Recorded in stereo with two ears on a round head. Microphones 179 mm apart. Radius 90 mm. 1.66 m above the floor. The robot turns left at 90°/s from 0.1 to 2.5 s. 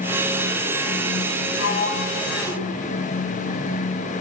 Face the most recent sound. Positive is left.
turn(degrees=-5)  # may be behind; listen again after turning